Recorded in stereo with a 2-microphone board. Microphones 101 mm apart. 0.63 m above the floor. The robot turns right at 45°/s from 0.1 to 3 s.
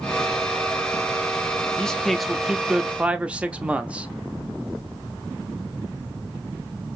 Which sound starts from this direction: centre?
A man speaking, at 1.8 s.